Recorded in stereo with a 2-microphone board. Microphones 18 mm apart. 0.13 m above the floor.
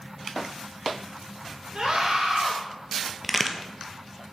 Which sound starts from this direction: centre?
A crack, at 3.2 s.